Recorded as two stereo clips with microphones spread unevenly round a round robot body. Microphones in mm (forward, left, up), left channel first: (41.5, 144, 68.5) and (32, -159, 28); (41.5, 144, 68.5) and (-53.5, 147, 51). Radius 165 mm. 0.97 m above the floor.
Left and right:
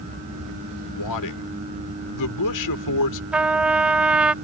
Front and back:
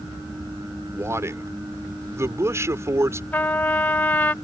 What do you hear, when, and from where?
0.9 s a man speaking: 120° left
3.3 s a trumpet: 5° left